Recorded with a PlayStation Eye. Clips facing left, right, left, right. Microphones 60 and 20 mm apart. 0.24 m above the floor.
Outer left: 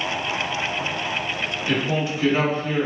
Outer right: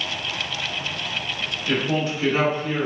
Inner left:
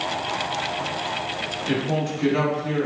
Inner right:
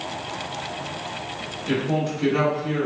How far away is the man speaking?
About 1.7 m.